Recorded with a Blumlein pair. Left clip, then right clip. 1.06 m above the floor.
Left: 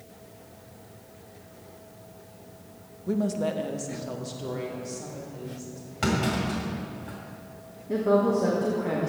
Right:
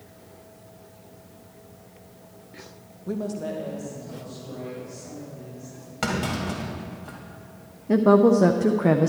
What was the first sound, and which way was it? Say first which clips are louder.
A woman speaking: left 2 dB; 5° right.